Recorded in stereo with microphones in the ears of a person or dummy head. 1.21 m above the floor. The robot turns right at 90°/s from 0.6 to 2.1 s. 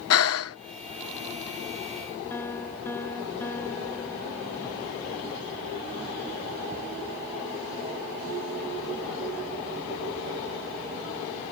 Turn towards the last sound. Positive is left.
turn(degrees=15)  # may be behind; listen again after turning